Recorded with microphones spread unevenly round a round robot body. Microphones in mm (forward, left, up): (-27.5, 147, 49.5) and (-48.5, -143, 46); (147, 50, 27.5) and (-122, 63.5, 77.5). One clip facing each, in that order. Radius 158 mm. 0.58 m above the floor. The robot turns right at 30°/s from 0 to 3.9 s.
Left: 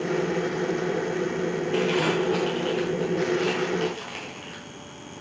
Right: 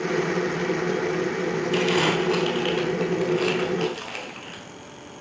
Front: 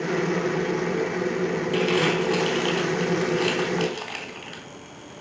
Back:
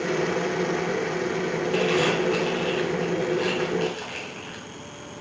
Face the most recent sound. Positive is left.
turn(degrees=5)